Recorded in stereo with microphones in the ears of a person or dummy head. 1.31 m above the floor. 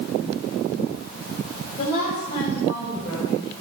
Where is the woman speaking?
40° left (ahead or behind), 5 m; by 3.5 s 10° left (ahead or behind), 5.5 m.